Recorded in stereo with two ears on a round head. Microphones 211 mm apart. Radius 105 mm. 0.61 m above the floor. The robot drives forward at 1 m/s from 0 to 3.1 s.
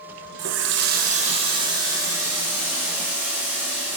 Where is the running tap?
50° right (ahead or behind), 0.5 m; by 4.0 s 10° right (ahead or behind), 2.5 m.